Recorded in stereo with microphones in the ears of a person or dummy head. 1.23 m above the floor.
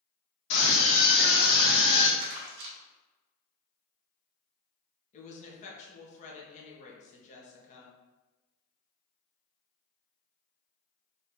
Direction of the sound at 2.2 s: 65° right (ahead or behind).